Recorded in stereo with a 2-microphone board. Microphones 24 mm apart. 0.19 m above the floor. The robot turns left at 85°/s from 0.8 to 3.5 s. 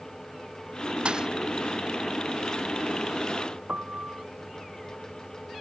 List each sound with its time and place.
1.1 s a thud: 45° right (ahead or behind); by 1.3 s 25° right (ahead or behind)
3.7 s a piano: 80° right